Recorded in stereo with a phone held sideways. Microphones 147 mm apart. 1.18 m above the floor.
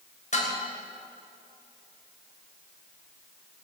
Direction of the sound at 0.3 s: 55° left (ahead or behind).